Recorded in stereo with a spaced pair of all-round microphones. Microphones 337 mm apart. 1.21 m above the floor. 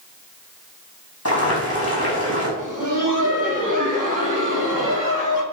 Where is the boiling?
45° left (ahead or behind), 3.5 m.